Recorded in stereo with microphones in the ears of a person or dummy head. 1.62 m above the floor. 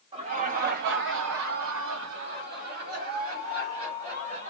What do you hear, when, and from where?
0.1 s laughter: 30° right (ahead or behind), 0.9 m; by 4.5 s 40° right (ahead or behind), 2.5 m